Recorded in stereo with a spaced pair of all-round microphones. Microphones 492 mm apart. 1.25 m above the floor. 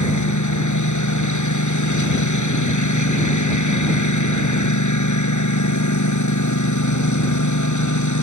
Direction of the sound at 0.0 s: 35° left (ahead or behind).